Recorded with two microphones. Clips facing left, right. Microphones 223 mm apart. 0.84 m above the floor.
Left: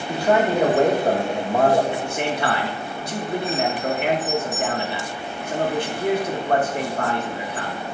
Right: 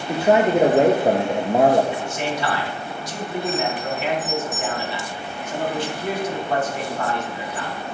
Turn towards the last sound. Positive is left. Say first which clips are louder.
# left 1 dB
turn(degrees=55)  # may be behind; listen again after turning